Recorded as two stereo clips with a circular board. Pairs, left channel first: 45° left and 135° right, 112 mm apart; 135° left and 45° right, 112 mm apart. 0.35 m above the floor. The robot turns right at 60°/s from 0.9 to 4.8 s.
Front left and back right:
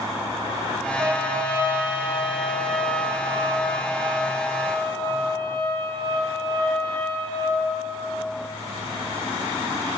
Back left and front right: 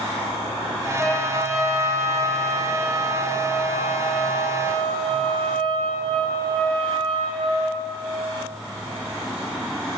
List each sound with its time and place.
1.0 s a trumpet: 145° right, 1.3 m; by 7.7 s 85° left, 1.3 m